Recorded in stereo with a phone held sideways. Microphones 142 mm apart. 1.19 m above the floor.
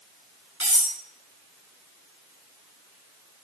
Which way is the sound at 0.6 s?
10° right (ahead or behind).